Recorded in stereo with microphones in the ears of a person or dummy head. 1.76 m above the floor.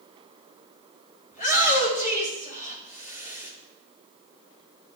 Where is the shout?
45° left (ahead or behind), 7 m.